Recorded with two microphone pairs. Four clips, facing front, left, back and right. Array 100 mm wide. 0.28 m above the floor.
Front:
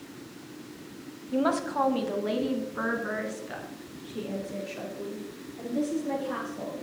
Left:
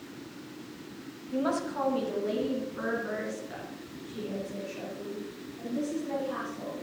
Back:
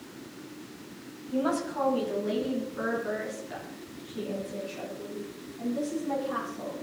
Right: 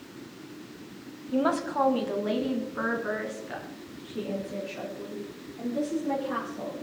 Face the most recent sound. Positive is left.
turn(degrees=-40)